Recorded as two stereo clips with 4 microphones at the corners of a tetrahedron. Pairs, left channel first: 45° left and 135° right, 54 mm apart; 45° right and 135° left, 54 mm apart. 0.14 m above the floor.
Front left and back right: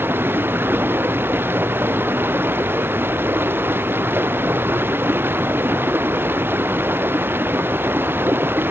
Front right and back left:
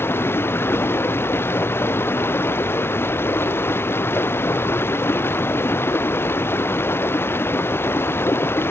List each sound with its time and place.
0.0 s running water: 90° right